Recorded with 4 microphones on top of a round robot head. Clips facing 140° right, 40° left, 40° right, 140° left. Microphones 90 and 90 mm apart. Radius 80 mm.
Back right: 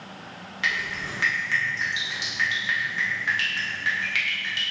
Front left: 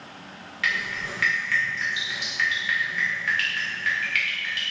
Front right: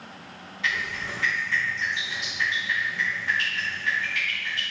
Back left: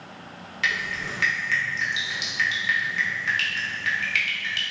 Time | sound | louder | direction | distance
0.6 | dripping | front left 1 dB, back left 1 dB | 150° left | 0.8 m